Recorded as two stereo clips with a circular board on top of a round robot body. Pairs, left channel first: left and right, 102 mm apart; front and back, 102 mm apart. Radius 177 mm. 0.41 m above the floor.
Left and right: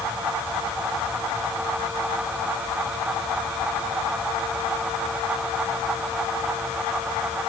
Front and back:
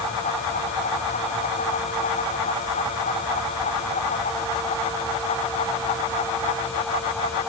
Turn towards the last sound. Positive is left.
No sound to turn to.